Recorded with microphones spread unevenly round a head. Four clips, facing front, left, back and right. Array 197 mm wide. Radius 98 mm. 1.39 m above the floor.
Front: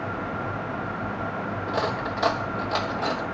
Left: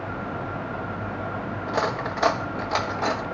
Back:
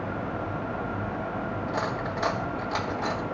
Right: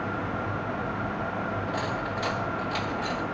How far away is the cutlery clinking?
About 1.0 m.